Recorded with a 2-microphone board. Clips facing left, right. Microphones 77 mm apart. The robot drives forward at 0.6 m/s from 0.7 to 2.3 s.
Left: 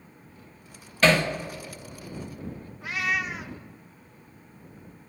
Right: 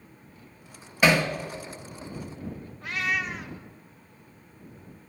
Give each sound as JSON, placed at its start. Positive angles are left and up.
{"t": 1.0, "sound": "hammering", "side_deg": -15, "distance_m": 1.0}
{"t": 2.8, "sound": "a cat meowing", "side_deg": 5, "distance_m": 0.6}